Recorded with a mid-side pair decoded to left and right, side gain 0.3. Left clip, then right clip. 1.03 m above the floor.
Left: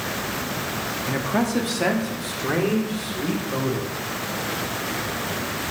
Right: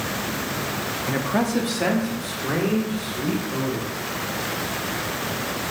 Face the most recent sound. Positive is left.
turn(degrees=45)